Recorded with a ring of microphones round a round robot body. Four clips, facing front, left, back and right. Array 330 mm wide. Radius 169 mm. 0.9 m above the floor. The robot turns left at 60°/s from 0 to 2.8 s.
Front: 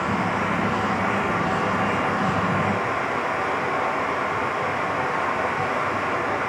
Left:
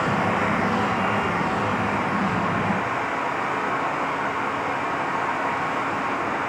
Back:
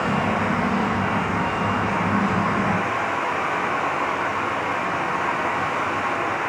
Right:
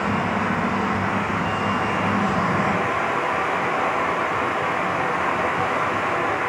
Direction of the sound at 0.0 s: 95° left.